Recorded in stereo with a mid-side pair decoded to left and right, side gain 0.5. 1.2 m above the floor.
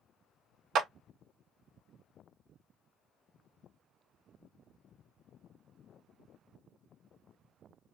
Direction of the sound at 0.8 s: 55° right.